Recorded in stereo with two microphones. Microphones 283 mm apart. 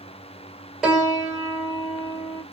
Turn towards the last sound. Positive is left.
turn(degrees=0)  # may be behind; listen again after turning